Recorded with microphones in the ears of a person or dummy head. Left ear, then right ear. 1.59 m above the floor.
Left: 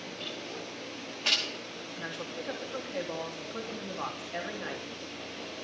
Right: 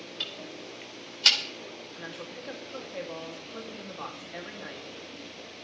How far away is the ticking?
About 3 m.